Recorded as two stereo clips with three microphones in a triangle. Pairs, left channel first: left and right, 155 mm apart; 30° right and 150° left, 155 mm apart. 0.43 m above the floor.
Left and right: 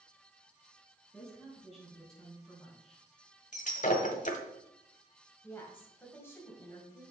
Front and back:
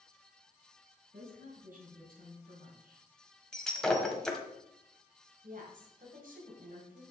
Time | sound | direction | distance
1.1 | a woman speaking | 175° left | 4.5 m
3.5 | breaking glass | 55° left | 1.2 m
5.4 | a woman speaking | 165° left | 2.5 m